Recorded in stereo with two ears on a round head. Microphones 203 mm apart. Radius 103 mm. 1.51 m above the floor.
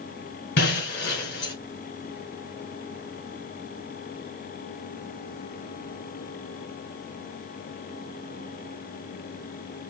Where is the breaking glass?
55° left (ahead or behind), 2.5 m.